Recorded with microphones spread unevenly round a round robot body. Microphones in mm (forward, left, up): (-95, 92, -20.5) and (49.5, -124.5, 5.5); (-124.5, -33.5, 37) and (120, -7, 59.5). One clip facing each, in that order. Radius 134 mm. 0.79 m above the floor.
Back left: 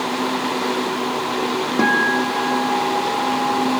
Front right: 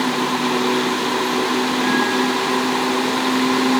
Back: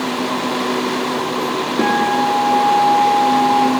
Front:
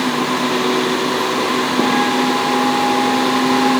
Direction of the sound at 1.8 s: 105° left.